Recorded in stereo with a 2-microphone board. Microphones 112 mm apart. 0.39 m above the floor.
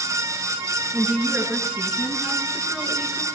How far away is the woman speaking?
About 4.5 m.